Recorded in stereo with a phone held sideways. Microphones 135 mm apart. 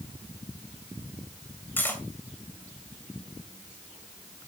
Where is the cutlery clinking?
15° left (ahead or behind), 3 m.